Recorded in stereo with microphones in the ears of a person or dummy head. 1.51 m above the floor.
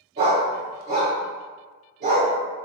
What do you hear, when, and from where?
0.2 s a dog barking: 30° right (ahead or behind), 1.3 m